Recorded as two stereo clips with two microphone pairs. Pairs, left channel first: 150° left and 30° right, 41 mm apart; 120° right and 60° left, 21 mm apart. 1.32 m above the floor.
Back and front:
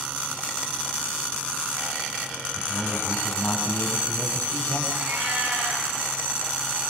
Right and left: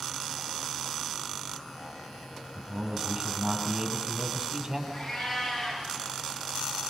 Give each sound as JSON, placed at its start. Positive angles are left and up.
{"t": 2.5, "sound": "a man speaking", "azimuth_deg": 120, "distance_m": 7.5}
{"t": 4.9, "sound": "a cat meowing", "azimuth_deg": -30, "distance_m": 7.0}